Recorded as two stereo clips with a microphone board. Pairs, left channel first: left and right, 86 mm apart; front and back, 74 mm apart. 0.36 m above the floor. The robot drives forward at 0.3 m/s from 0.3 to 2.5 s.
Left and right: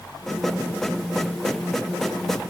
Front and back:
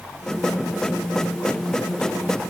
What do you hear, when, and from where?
Only background noise.